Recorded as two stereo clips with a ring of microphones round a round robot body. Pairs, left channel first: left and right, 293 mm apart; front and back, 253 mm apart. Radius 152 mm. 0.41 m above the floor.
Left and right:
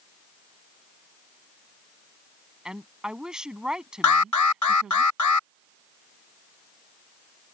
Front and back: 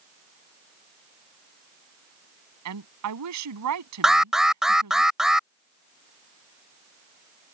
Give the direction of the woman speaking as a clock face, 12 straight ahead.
6 o'clock.